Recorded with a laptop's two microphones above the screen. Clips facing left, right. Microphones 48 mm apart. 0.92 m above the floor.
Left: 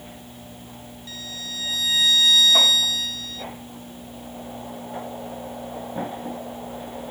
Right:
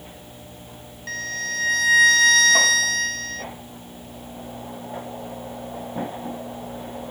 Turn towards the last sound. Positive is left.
turn(degrees=-60)  # may be behind; listen again after turning